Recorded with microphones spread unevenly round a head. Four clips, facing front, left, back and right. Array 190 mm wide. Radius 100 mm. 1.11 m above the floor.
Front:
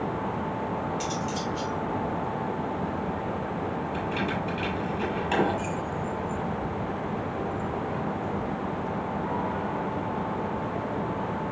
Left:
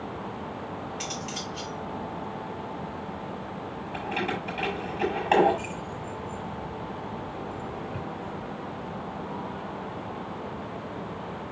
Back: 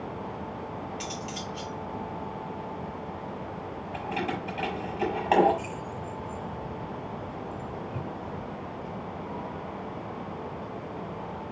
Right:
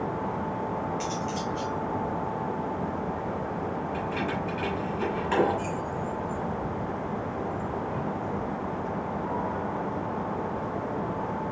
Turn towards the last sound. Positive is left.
turn(degrees=150)